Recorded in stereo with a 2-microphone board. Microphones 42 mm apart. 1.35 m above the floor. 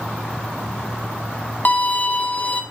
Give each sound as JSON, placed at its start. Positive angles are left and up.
{"t": 1.6, "sound": "a violin", "side_deg": 35, "distance_m": 0.6}